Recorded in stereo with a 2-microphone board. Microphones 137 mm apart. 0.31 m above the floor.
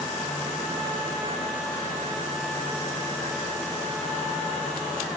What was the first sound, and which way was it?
Only background noise.